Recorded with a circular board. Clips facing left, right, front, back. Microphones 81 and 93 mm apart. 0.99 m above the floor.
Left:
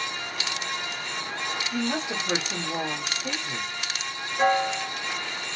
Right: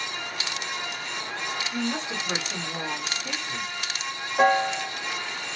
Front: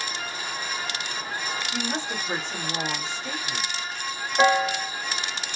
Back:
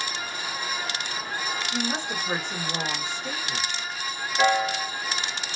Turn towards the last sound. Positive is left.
turn(degrees=-65)